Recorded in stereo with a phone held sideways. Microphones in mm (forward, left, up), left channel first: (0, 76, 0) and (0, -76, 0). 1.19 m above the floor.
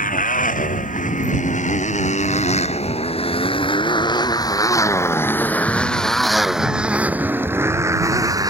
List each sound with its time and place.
0.0 s a motorcycle: 65° left (ahead or behind); by 8.5 s 25° right (ahead or behind)